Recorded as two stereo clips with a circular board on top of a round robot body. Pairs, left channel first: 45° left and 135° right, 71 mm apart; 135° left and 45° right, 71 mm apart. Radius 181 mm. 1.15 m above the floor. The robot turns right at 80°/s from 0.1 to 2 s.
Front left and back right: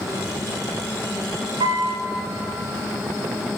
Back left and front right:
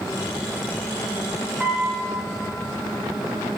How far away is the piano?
About 2.5 m.